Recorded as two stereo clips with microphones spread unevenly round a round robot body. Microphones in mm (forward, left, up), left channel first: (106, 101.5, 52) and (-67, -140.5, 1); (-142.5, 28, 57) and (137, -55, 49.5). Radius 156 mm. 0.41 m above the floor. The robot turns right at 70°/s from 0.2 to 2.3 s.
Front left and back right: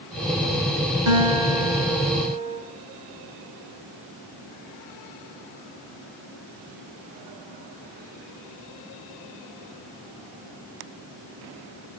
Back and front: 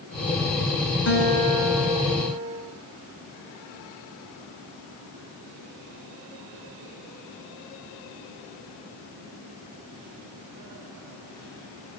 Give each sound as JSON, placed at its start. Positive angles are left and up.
{"t": 1.1, "sound": "a guitar", "azimuth_deg": -145, "distance_m": 5.5}